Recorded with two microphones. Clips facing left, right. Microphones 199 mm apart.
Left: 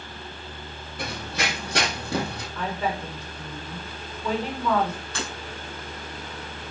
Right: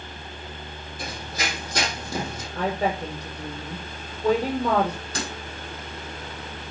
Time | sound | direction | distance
1.0 | running footsteps | 65° left (ahead or behind) | 4 m
2.5 | a woman speaking | 40° right (ahead or behind) | 5 m
5.2 | breaking glass | 35° right (ahead or behind) | 5.5 m